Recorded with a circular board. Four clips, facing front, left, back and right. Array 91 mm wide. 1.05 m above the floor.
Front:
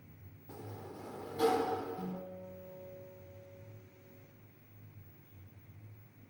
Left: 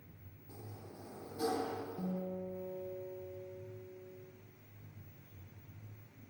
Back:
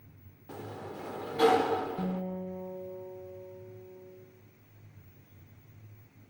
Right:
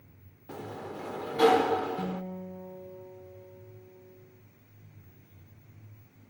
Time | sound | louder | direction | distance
0.5 | a sliding door | right 13 dB, back 6 dB | 115° right | 1.3 m
2.0 | a guitar | right 4 dB, back 8 dB | 155° right | 3.5 m